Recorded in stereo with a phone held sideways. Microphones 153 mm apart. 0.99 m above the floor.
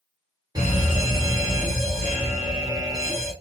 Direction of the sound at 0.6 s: 25° right (ahead or behind).